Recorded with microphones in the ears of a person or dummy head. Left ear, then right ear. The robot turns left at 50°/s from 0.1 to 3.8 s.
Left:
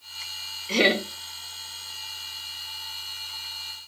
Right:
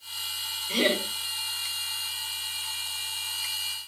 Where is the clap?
I don't hear a clap.